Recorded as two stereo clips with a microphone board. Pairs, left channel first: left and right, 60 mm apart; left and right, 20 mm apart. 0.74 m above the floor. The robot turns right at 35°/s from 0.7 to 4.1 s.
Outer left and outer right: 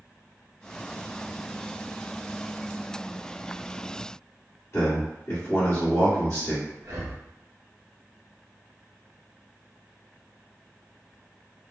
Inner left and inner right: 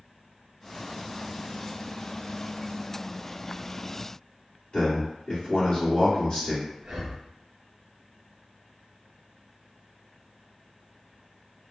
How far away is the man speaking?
About 1.8 m.